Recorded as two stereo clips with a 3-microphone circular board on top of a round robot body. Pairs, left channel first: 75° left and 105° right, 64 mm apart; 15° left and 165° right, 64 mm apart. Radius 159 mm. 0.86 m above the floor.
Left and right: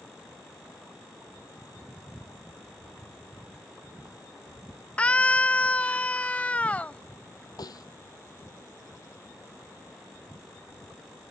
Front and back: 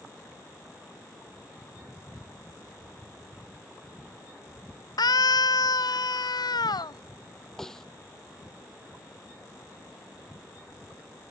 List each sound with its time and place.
5.0 s a scream: 5° left
7.6 s a snare drum: 100° left